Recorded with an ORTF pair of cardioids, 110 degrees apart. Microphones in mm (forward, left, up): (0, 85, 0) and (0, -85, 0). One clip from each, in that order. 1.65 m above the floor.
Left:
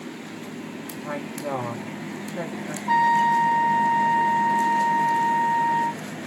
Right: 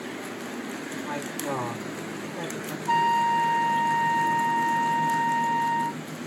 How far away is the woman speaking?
About 1.6 m.